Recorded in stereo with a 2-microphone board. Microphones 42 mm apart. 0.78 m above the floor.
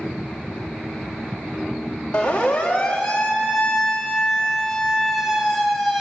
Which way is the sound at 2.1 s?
25° left (ahead or behind).